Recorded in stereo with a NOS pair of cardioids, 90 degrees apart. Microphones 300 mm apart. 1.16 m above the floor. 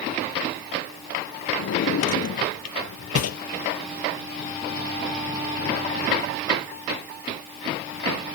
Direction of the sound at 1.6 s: 55° left.